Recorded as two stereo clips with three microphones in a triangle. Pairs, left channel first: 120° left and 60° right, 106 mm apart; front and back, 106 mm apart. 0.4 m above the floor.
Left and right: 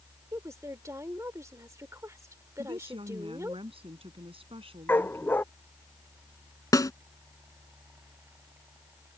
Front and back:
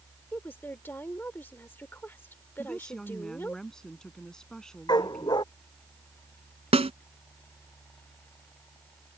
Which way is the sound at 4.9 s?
50° left.